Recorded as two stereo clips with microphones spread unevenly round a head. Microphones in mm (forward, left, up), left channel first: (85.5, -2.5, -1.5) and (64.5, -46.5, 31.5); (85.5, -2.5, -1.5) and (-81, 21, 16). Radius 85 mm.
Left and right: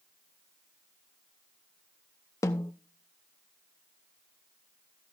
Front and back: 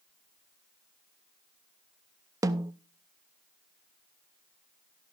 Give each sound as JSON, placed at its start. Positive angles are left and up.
{"t": 2.4, "sound": "a snare drum", "azimuth_deg": 130, "distance_m": 0.5}